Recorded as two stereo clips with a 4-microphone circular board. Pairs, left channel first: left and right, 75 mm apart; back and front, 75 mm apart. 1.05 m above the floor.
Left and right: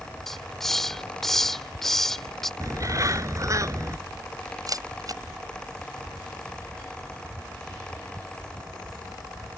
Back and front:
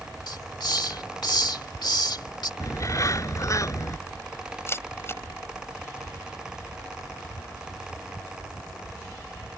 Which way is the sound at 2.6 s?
135° right.